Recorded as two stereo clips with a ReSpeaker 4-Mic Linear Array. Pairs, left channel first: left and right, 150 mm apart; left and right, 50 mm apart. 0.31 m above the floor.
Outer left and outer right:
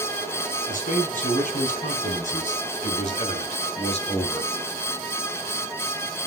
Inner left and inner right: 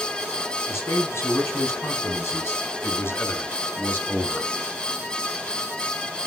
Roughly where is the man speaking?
Left.